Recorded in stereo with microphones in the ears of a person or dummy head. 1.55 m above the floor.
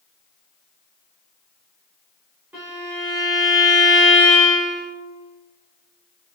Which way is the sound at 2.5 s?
10° right (ahead or behind).